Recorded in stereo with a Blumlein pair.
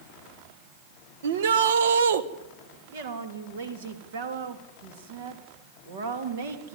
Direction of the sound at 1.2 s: 60° right.